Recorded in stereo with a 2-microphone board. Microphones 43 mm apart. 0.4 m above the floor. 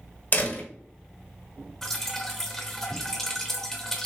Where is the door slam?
45° left (ahead or behind), 1.6 m.